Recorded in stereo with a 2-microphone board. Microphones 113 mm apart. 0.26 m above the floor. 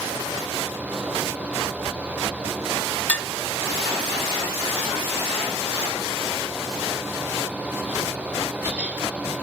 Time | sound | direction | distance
3.1 | dishes clattering | 10° left (ahead or behind) | 1.0 m